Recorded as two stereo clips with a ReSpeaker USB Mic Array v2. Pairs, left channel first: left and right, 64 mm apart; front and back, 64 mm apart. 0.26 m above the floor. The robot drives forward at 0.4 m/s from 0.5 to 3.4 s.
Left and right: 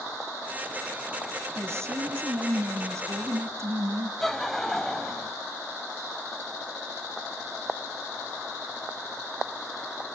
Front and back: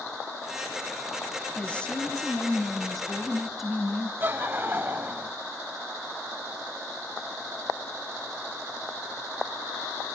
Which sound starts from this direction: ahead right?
A woman speaking, at 1.6 s.